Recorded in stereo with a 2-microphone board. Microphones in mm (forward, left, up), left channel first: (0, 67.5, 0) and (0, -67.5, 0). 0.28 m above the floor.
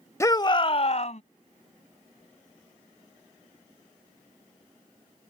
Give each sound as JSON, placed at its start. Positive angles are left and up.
{"t": 0.2, "sound": "a shout", "side_deg": 20}